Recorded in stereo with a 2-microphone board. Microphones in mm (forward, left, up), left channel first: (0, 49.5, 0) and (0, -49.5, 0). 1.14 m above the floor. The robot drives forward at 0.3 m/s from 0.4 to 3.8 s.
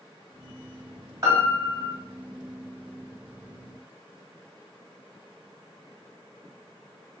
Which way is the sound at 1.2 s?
30° right (ahead or behind).